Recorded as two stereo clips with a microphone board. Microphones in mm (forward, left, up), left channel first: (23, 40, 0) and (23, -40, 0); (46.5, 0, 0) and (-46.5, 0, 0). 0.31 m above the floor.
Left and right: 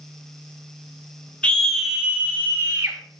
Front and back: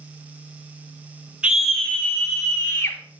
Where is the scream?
130° left, 0.9 m; by 3.0 s 40° right, 1.7 m.